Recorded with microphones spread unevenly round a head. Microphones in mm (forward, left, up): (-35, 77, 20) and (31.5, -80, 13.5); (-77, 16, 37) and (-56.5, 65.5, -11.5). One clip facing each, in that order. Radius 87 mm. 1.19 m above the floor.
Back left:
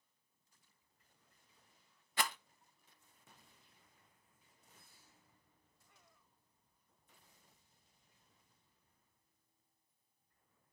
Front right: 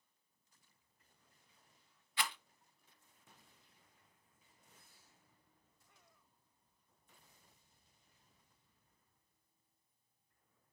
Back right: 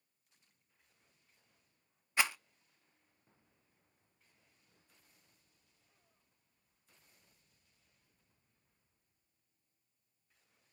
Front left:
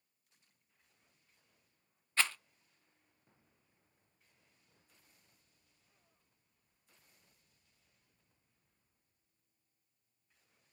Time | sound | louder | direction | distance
2.2 | a rattle | back left 3 dB, back right 1 dB | 165° left | 0.6 m